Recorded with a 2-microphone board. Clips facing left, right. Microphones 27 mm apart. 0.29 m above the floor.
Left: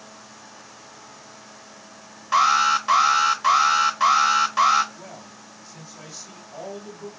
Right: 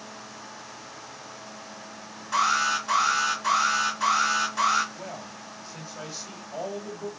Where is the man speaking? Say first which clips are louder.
Right 3 dB; 40° right (ahead or behind), 1.7 m.